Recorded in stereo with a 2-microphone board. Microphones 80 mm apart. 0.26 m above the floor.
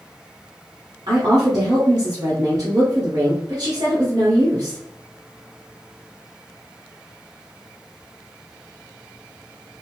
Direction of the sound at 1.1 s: 55° right (ahead or behind).